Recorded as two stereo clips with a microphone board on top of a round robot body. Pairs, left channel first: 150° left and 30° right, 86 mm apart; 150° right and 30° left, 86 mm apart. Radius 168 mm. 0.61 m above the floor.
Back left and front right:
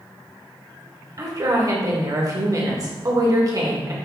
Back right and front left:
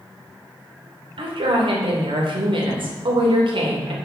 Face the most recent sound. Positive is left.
turn(degrees=15)